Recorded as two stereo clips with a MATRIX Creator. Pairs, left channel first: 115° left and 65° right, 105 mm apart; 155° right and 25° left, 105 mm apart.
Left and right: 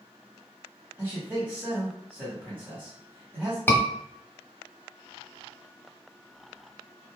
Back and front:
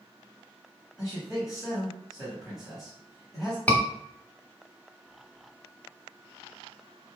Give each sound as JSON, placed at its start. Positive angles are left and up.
{"t": 1.0, "sound": "a man speaking", "azimuth_deg": -65, "distance_m": 1.6}
{"t": 3.7, "sound": "a scream", "azimuth_deg": 150, "distance_m": 1.0}